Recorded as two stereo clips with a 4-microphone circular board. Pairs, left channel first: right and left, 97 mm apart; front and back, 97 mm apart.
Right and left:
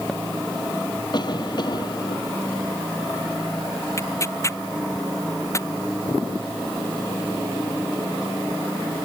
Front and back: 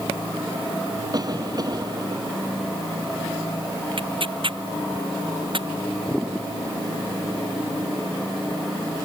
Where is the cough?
130° right.